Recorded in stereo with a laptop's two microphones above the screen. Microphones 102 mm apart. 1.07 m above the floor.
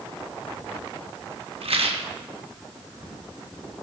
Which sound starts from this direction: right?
A rattle, at 1.6 s.